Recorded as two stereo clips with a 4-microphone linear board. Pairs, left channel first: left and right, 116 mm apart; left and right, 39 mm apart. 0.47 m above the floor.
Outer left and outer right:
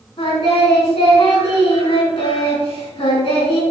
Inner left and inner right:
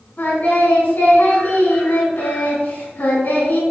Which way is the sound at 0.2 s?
55° left (ahead or behind).